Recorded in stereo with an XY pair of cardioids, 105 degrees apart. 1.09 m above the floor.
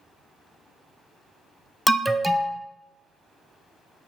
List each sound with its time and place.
1.9 s an alarm: straight ahead, 0.6 m